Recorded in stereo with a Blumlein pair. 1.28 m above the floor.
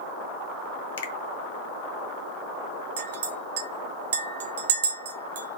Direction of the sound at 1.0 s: 60° left.